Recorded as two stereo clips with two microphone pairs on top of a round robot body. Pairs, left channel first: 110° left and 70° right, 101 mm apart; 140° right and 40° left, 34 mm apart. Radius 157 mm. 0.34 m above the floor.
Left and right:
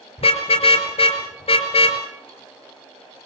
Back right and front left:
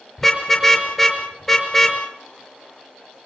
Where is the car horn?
135° left, 4.5 m.